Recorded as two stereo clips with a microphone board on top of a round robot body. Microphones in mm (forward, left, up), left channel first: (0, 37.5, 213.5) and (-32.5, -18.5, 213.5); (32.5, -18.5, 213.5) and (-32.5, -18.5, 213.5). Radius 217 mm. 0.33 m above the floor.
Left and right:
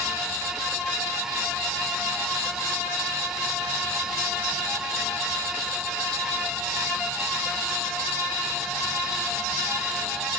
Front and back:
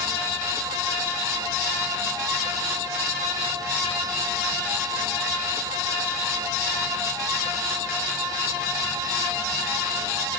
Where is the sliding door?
I don't hear a sliding door.